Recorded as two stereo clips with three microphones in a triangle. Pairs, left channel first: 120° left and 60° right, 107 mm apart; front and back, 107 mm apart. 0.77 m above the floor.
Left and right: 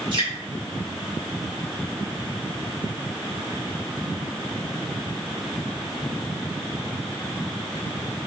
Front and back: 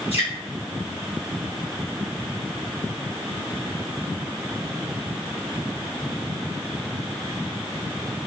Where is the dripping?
20° right, 2.0 m.